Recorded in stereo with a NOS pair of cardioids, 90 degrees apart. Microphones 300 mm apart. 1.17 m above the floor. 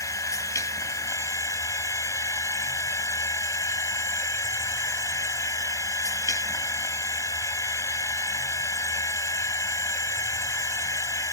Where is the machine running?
10° left.